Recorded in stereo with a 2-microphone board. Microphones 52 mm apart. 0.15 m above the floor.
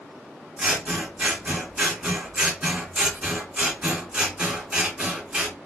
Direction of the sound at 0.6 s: 20° right (ahead or behind).